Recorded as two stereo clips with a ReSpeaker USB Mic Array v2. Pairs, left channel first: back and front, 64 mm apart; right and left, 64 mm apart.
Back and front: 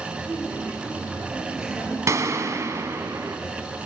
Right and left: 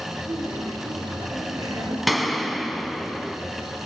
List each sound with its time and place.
0.2 s laughter: 65° left, 3.5 m; by 2.0 s 85° left, 4.5 m
2.1 s a gunshot: straight ahead, 1.1 m